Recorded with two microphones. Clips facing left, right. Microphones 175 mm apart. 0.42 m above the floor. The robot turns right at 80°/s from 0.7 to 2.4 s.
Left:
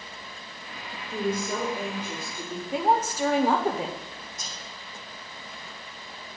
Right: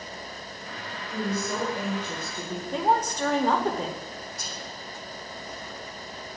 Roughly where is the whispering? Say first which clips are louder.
Right 3 dB; left.